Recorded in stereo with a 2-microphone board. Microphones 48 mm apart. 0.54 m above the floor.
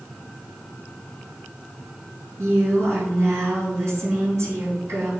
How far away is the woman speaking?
About 5 m.